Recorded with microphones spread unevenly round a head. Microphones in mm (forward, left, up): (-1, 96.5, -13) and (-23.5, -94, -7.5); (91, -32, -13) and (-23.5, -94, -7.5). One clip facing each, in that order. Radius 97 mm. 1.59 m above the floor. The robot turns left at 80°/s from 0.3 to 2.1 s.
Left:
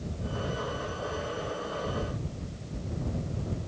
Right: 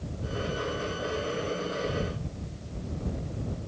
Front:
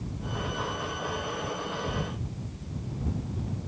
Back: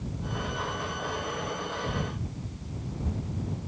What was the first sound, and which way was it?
Only background noise.